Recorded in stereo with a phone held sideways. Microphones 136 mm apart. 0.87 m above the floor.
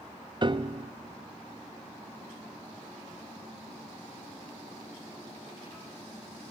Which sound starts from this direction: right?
A piano, at 0.4 s.